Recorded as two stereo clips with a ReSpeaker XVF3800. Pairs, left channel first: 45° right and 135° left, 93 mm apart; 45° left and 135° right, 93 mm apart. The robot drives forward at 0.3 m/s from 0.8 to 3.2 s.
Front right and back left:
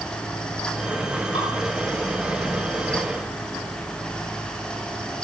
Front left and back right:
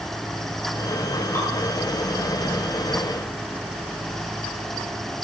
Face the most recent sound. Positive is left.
turn(degrees=-20)